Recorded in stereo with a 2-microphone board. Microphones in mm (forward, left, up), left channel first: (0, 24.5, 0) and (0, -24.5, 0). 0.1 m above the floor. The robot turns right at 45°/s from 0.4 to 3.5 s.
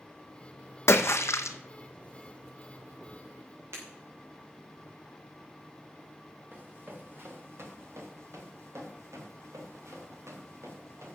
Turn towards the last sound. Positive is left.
turn(degrees=-75)  # may be behind; listen again after turning